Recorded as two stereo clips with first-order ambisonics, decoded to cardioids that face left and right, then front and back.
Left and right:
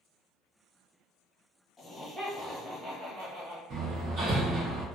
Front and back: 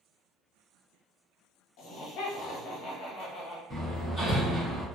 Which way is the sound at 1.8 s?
15° left.